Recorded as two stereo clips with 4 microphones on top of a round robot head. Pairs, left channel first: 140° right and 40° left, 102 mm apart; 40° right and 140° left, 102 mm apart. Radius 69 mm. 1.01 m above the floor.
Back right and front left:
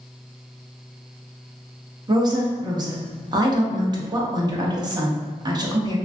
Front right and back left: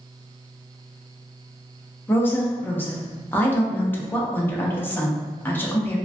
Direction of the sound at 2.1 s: 25° left.